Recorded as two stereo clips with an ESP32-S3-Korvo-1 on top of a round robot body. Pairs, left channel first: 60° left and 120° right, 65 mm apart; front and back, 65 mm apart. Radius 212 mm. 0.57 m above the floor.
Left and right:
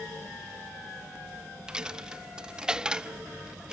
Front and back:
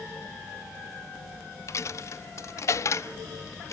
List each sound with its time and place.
1.7 s a dropped coin: 45° right